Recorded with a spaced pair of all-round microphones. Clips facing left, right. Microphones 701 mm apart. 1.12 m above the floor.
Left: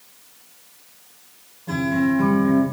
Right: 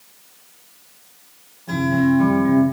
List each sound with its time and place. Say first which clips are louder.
1.7 s a guitar: right 3 dB; 35° left (ahead or behind), 1.7 m